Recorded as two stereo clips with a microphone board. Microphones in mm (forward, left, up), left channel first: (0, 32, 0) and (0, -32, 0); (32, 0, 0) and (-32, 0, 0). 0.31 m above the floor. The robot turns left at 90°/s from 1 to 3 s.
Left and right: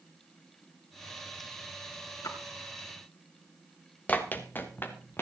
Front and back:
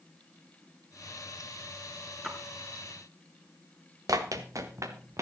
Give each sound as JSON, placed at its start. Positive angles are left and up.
{"t": 2.2, "sound": "a splash", "azimuth_deg": 100, "distance_m": 3.0}
{"t": 4.1, "sound": "running footsteps", "azimuth_deg": 155, "distance_m": 2.0}